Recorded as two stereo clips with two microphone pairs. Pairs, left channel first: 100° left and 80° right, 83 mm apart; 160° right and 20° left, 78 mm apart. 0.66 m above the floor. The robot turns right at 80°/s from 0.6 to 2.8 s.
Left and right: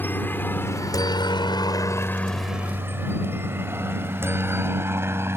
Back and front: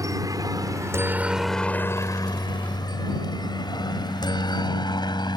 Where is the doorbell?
I don't hear a doorbell.